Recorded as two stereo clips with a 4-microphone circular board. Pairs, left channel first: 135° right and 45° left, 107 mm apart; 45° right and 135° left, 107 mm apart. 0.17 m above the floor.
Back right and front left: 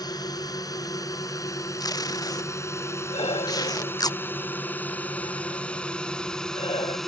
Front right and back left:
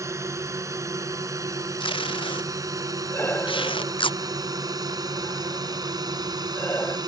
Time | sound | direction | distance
0.0 | a drone | 175° right | ?
1.8 | tape being pulled | 80° right | ?
3.1 | breathing | 115° right | ?